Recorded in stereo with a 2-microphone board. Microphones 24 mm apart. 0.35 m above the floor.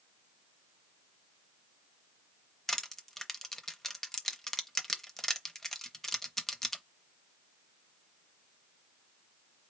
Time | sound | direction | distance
2.7 | crushing | 15° left (ahead or behind) | 0.7 m